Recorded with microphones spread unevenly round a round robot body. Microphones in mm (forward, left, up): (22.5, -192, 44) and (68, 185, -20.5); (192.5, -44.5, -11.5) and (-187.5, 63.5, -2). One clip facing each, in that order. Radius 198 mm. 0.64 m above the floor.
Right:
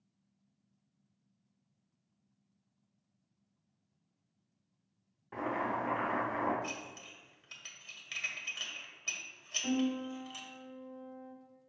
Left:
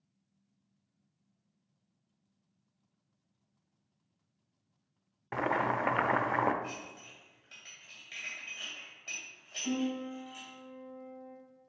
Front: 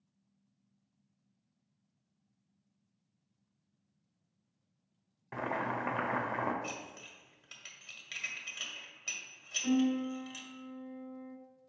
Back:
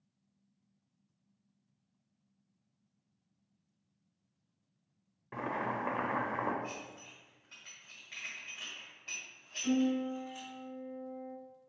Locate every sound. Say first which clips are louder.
5.3 s boiling: left 3 dB, front 1 dB; 65° left, 0.7 m
6.6 s dishes clattering: even, even; 45° right, 1.6 m
9.6 s a piano: right 1 dB, front 1 dB; 65° right, 2.5 m